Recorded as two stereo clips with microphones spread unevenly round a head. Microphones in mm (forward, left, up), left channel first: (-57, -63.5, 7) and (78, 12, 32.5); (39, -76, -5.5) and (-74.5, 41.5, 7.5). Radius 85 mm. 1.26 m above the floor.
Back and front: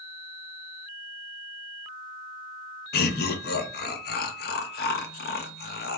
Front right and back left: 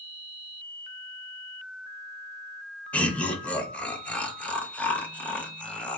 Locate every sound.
2.9 s laughter: 130° right, 0.8 m